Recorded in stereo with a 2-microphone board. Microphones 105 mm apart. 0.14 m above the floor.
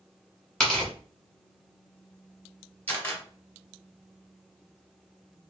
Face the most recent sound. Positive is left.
turn(degrees=20)  # may be behind; listen again after turning